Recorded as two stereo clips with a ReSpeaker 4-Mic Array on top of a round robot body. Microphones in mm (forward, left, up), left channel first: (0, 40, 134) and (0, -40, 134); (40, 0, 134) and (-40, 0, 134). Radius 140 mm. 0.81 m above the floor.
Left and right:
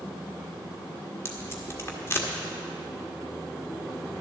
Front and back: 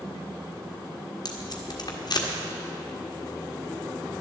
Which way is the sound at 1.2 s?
30° left.